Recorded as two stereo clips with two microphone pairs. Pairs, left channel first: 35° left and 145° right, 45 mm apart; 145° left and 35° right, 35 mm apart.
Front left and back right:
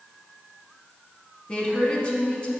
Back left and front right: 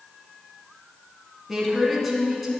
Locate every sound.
1.5 s a woman speaking: 45° left, 1.5 m